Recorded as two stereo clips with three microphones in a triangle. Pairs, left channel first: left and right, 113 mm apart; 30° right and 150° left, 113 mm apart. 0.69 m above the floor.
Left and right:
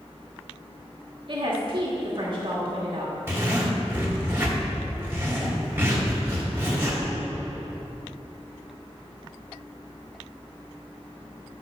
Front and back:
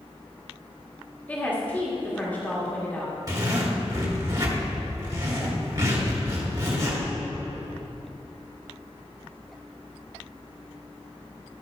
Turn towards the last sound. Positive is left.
turn(degrees=-160)